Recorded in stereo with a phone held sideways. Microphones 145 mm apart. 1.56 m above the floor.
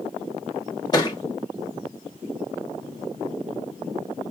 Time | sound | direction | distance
0.9 | a thud | 25° left (ahead or behind) | 1.2 m